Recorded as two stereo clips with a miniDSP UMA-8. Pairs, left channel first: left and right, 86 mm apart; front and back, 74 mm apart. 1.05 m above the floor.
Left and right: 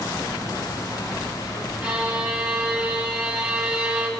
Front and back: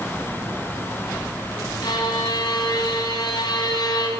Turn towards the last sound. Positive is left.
turn(degrees=-10)